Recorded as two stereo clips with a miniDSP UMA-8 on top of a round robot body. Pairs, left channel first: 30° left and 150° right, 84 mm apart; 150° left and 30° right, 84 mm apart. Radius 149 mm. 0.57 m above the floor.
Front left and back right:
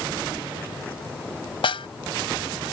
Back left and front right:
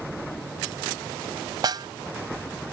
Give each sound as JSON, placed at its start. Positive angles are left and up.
{"t": 1.6, "sound": "a snare drum", "azimuth_deg": 10}